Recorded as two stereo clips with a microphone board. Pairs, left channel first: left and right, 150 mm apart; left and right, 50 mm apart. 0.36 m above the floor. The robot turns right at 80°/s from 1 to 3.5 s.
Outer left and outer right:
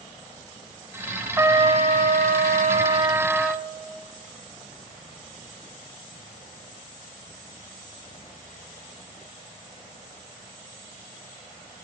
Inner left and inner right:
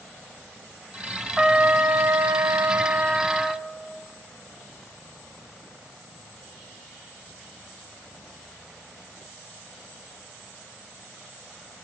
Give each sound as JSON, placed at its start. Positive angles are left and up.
{"t": 1.4, "sound": "a trumpet", "azimuth_deg": -165, "distance_m": 0.5}